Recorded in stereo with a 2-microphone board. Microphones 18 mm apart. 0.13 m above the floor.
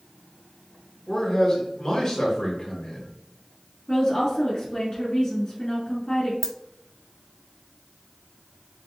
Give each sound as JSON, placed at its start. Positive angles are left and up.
{"t": 1.1, "sound": "a man speaking", "side_deg": 30, "distance_m": 1.9}
{"t": 3.9, "sound": "a woman speaking", "side_deg": 25, "distance_m": 1.3}
{"t": 6.4, "sound": "a dropped coin", "side_deg": 10, "distance_m": 0.5}